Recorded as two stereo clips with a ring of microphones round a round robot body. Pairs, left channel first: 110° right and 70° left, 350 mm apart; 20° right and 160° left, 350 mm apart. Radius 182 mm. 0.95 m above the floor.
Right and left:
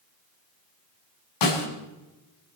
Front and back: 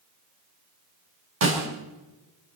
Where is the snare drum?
145° right, 5 m.